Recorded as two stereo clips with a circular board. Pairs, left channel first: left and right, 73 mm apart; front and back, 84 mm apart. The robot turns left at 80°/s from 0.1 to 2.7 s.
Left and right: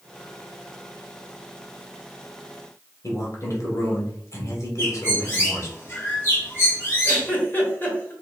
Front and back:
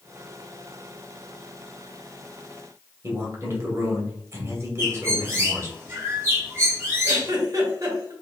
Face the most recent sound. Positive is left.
turn(degrees=145)